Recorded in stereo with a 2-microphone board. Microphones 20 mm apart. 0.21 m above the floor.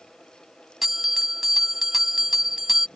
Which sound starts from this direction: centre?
A bell, at 0.8 s.